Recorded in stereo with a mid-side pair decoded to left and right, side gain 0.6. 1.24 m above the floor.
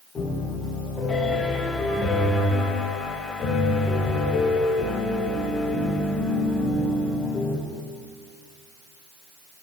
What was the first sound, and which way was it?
A piano, 40° left.